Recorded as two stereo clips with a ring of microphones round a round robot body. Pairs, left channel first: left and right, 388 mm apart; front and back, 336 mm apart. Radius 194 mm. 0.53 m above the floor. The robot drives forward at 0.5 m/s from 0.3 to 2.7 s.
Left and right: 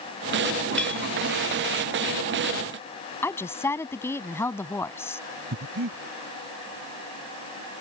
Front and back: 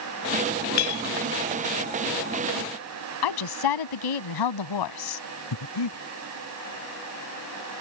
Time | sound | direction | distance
0.8 | a clink | 5° left | ?
3.2 | a woman speaking | 5° left | ?
5.5 | breathing | 30° right | ?